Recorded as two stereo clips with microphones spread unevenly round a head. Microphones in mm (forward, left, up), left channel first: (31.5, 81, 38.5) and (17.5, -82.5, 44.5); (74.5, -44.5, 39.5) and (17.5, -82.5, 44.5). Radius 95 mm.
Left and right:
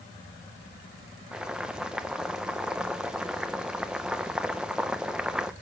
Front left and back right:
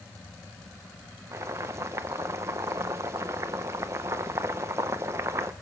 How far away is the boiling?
About 0.6 m.